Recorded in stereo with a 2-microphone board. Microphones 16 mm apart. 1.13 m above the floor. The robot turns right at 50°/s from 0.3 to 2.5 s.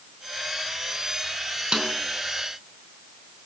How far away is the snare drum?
About 4 m.